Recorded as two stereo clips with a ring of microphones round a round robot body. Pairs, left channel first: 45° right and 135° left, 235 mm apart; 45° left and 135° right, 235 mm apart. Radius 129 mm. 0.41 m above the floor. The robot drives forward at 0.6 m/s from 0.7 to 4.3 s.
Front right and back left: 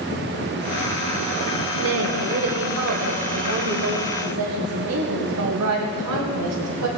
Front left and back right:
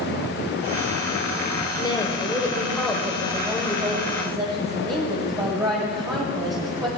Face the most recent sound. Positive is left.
turn(degrees=150)